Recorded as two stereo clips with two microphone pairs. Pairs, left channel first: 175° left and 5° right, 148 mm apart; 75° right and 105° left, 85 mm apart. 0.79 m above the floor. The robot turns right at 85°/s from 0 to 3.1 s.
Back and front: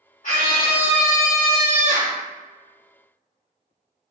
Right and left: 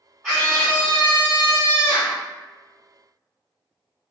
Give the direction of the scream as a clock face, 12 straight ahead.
6 o'clock.